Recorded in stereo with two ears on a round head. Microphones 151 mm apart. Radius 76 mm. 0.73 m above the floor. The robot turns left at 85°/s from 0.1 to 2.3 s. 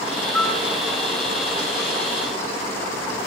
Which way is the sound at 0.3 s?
10° left (ahead or behind).